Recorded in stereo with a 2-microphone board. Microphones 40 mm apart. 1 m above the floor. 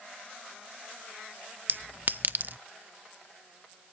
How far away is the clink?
About 0.6 m.